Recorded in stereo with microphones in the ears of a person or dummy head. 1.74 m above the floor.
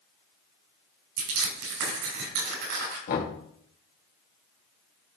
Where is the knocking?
60° left (ahead or behind), 2.5 m.